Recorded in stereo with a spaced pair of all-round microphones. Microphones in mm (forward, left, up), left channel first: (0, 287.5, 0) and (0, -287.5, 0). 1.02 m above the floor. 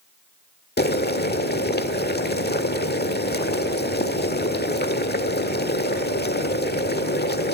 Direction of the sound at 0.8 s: 15° left (ahead or behind).